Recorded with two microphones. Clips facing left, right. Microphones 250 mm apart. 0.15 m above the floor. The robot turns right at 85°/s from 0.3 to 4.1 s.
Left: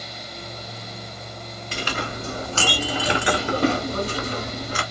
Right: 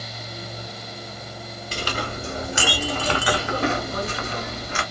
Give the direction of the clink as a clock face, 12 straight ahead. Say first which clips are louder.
Even; 3 o'clock.